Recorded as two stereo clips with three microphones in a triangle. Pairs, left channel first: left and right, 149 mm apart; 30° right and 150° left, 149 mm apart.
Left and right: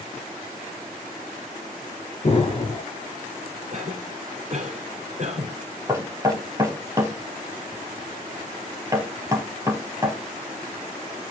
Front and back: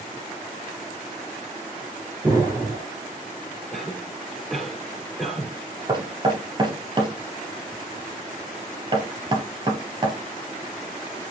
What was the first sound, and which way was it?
An explosion, 95° left.